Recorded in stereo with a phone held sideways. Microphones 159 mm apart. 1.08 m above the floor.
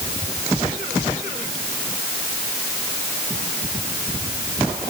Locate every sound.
Only background noise.